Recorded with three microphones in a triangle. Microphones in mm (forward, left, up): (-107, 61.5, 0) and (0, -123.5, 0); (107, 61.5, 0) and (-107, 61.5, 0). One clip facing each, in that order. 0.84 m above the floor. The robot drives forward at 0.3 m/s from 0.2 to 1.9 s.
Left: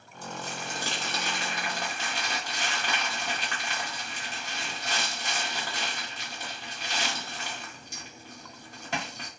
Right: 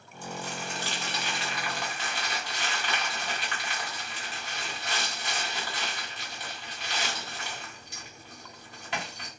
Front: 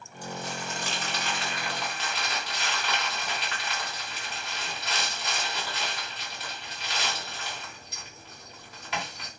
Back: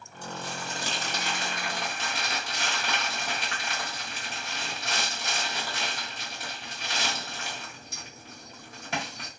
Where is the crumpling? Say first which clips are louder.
Right 1 dB, front 1 dB; 130° left, 0.8 m; by 9.3 s 155° left, 1.1 m.